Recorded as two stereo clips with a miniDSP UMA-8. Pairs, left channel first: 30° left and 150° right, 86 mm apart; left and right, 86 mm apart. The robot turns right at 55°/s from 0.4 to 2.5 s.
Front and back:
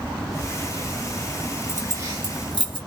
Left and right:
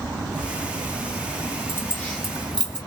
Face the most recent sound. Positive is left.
turn(degrees=-170)